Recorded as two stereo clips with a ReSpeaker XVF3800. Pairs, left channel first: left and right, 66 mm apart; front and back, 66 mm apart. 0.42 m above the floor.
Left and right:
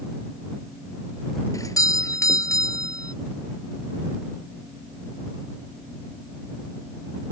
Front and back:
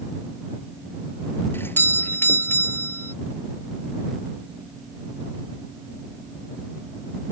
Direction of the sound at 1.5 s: 55° left.